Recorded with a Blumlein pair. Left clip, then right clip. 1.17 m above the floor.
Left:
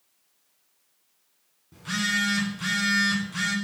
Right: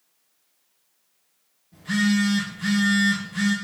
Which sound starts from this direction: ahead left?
A phone buzzing, at 1.7 s.